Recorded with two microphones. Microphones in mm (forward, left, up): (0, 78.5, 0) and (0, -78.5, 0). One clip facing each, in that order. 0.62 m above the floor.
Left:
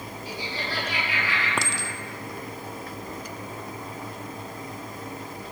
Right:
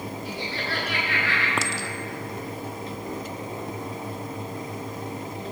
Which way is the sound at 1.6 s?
Centre (ahead or behind).